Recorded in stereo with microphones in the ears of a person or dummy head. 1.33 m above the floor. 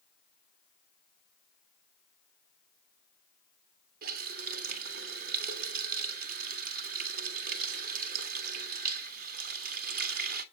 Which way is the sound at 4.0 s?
50° right (ahead or behind).